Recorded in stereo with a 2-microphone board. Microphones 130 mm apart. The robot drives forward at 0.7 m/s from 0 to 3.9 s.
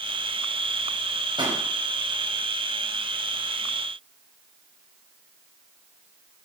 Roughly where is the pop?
Right.